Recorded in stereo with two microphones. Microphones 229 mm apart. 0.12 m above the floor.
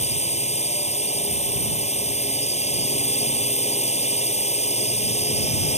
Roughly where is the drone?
Left.